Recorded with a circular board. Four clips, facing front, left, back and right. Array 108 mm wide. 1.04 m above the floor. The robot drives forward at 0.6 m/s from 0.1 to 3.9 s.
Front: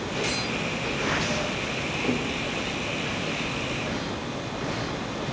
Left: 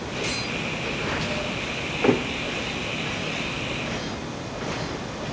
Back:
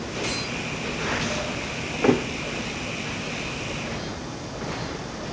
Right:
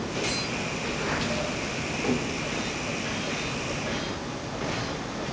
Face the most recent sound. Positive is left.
turn(degrees=165)